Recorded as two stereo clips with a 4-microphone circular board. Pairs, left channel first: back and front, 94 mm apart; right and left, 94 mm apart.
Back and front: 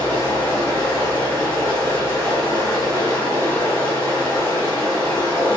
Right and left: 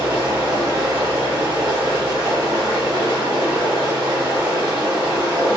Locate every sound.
0.0 s running water: 120° left, 1.3 m